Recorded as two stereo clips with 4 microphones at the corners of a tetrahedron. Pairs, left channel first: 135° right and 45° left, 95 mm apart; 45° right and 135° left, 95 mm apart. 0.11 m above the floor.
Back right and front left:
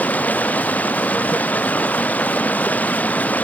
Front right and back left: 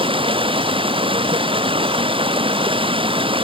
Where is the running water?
150° left.